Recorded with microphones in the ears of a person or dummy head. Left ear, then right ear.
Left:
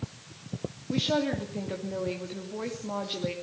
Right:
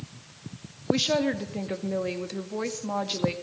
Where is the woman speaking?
75° right (ahead or behind), 2 m.